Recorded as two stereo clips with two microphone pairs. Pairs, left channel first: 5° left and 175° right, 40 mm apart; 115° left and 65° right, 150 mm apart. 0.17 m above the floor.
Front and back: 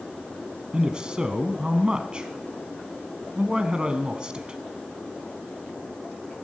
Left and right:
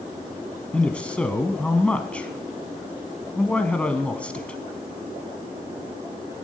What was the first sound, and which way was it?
A man speaking, 170° right.